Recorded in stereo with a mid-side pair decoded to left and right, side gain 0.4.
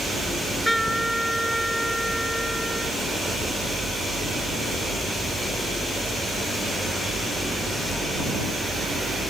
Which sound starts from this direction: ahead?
A trumpet, at 0.3 s.